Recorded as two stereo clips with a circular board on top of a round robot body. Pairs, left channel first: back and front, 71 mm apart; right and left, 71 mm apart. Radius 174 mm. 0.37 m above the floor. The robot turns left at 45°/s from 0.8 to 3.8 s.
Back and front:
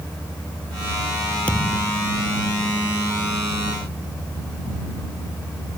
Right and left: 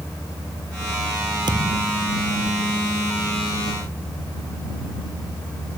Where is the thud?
105° left; by 2.2 s 75° left.